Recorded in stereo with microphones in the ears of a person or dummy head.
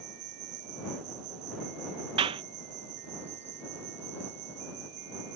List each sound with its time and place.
0.0 s an insect: 55° right (ahead or behind)
2.2 s a clap: 25° right (ahead or behind)